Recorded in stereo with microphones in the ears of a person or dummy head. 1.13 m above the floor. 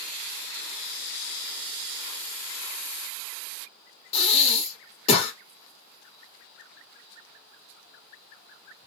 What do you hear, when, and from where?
4.1 s breathing: 40° left (ahead or behind), 1.2 m